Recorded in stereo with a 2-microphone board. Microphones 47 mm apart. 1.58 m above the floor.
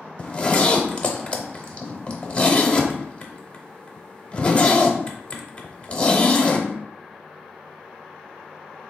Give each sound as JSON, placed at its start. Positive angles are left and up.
{"t": 0.2, "sound": "a zipper", "side_deg": 25, "distance_m": 0.6}